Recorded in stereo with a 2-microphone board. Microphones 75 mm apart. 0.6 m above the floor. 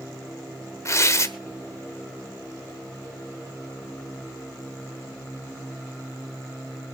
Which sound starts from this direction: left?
Tearing paper, at 0.8 s.